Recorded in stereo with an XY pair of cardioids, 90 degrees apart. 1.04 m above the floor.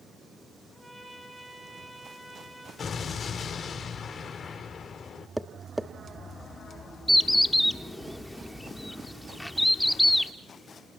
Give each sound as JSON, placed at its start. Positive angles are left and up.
{"t": 0.7, "sound": "a trumpet", "azimuth_deg": -5, "distance_m": 9.0}
{"t": 2.8, "sound": "an explosion", "azimuth_deg": 55, "distance_m": 3.5}
{"t": 5.4, "sound": "tapping", "azimuth_deg": -5, "distance_m": 1.1}
{"t": 7.1, "sound": "a bird", "azimuth_deg": 10, "distance_m": 1.2}